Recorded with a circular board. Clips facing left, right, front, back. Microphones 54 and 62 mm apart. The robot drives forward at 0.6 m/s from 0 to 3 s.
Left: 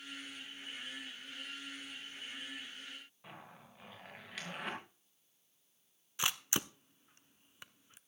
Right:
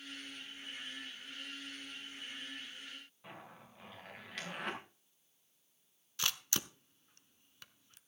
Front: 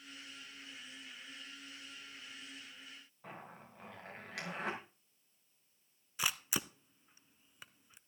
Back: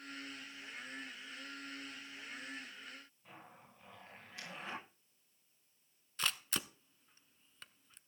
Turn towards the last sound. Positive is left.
turn(degrees=60)